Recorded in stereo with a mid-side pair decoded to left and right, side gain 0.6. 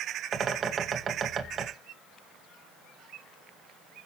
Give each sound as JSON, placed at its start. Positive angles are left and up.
{"t": 0.3, "sound": "a bird", "azimuth_deg": -35, "distance_m": 2.0}